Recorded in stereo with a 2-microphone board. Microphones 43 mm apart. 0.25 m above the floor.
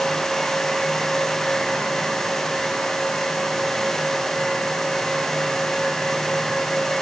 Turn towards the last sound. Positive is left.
No sound to turn to.